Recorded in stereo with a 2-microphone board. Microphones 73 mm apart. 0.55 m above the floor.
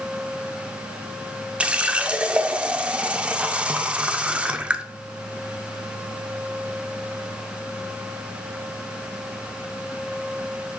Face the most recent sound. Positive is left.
turn(degrees=-15)  # may be behind; listen again after turning